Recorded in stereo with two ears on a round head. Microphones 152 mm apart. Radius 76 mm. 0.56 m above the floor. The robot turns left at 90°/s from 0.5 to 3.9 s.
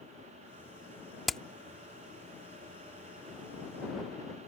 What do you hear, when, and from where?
1.3 s hammering: centre (ahead or behind); by 1.4 s 5° left (ahead or behind)